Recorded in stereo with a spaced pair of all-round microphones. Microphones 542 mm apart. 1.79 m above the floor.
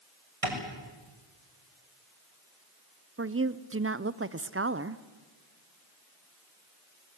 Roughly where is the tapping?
Right.